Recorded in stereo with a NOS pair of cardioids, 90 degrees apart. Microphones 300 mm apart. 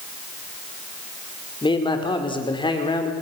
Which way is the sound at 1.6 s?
15° left.